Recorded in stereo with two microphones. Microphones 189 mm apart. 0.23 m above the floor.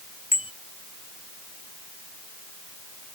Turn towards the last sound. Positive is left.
turn(degrees=30)  # may be behind; listen again after turning